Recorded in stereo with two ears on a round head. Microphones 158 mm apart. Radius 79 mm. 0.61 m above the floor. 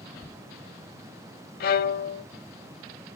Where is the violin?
60° left (ahead or behind), 0.7 m.